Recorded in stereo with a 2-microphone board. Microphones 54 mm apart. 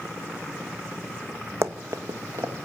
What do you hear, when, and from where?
1.6 s running footsteps: 60° right (ahead or behind), 1.1 m; by 2.6 s 80° right, 2 m